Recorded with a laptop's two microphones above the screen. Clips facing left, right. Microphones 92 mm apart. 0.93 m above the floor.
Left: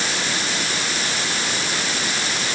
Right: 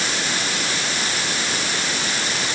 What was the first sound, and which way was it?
Only background noise.